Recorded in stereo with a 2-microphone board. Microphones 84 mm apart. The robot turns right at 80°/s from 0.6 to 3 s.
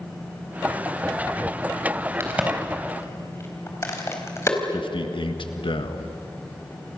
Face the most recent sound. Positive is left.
turn(degrees=75)  # may be behind; listen again after turning